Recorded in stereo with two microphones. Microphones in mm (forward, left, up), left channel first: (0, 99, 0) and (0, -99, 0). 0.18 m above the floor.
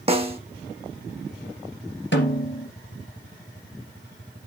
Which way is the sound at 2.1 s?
70° left (ahead or behind).